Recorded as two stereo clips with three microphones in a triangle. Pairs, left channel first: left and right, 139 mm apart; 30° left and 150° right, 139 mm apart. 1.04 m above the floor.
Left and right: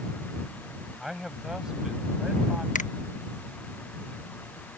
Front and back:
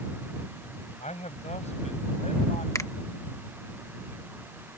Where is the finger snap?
95° left.